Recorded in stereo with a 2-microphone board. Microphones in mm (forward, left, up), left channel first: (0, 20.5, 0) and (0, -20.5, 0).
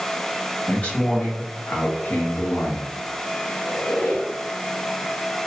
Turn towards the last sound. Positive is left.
turn(degrees=55)  # may be behind; listen again after turning